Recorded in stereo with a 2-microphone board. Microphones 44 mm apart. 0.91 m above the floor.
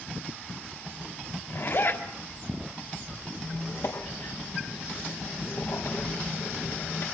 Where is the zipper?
60° left (ahead or behind), 4 m.